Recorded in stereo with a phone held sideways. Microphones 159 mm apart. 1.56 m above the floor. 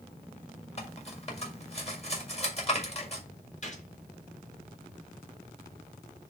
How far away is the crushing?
No crushing in this recording.